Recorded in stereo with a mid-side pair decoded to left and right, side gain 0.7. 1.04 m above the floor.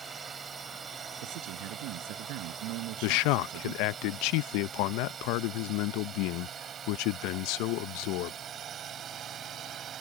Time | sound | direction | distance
0.0 | a drone | 25° right | ?
1.2 | a man speaking | 70° right | ?
3.0 | a man speaking | 70° left | ?